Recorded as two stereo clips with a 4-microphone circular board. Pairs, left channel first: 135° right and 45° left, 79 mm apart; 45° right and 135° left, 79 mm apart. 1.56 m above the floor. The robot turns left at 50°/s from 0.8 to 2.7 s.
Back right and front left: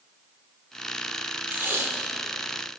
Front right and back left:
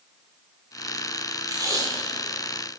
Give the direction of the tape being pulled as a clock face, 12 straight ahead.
8 o'clock.